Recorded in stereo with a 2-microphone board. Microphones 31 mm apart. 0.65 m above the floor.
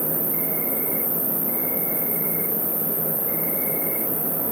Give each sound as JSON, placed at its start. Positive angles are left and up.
{"t": 0.0, "sound": "an insect", "side_deg": -10, "distance_m": 4.0}